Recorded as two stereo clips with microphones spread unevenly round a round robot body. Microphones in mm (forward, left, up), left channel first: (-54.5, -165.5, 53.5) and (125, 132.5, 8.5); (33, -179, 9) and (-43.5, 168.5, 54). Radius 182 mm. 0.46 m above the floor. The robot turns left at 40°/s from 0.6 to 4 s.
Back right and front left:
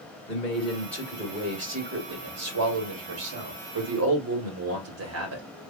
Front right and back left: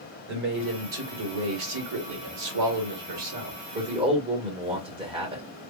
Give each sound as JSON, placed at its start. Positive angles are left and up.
{"t": 0.3, "sound": "a man speaking", "azimuth_deg": 160, "distance_m": 2.0}